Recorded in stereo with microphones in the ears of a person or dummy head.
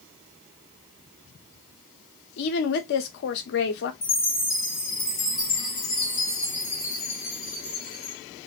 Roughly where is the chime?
Left.